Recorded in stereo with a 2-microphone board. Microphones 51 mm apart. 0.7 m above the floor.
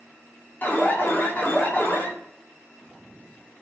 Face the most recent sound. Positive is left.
turn(degrees=40)  # may be behind; listen again after turning